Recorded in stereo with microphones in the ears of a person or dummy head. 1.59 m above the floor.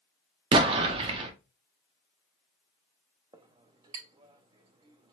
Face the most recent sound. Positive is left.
turn(degrees=-20)  # may be behind; listen again after turning